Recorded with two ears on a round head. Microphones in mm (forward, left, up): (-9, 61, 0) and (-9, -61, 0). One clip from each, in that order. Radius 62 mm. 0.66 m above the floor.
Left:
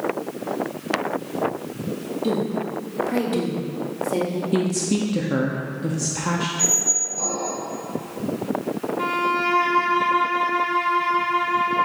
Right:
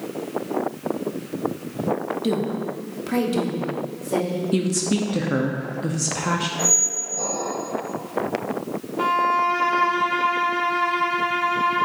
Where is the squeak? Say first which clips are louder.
Left 1 dB; 10° left (ahead or behind), 2 m.